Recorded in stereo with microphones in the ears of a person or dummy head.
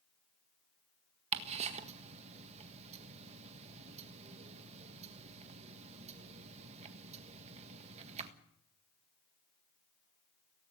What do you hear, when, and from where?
1.3 s ticking: 40° right (ahead or behind), 1.6 m